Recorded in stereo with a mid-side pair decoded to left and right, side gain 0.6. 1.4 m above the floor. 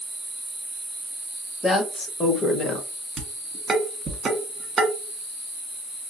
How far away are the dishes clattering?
About 1.4 m.